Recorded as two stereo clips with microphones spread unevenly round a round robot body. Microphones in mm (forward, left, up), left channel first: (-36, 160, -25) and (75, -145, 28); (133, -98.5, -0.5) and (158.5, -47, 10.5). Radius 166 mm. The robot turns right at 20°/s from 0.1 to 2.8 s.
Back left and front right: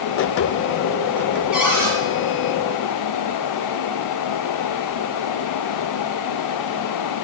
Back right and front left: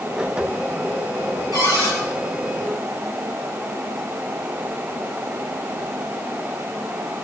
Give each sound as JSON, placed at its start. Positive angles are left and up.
{"t": 1.5, "sound": "a cupboard door", "azimuth_deg": -160, "distance_m": 5.5}